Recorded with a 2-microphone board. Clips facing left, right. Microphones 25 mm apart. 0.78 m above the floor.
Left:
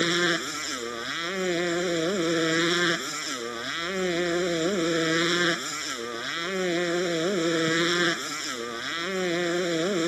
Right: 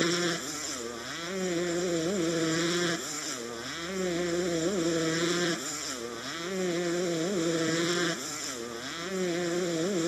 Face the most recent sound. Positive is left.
turn(degrees=30)  # may be behind; listen again after turning